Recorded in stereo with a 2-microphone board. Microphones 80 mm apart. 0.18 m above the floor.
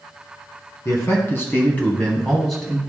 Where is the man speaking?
40° left (ahead or behind), 1.9 m; by 2.8 s 10° right (ahead or behind), 1.7 m.